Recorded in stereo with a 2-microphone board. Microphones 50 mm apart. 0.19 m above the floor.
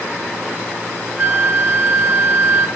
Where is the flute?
25° right (ahead or behind), 1.7 m.